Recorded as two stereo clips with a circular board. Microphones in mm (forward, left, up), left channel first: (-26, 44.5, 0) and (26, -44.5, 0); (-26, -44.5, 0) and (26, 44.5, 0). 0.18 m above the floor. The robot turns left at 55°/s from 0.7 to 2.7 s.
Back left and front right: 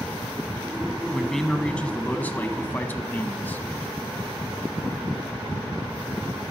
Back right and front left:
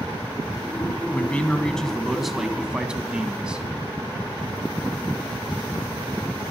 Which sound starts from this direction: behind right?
A man speaking, at 1.1 s.